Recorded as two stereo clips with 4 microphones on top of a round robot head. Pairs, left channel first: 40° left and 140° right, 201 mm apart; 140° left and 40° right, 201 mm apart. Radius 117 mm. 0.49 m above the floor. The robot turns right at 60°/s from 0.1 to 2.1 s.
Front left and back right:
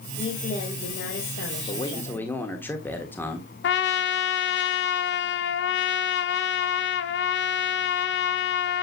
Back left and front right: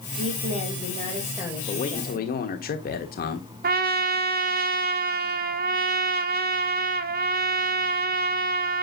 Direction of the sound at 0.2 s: 30° right.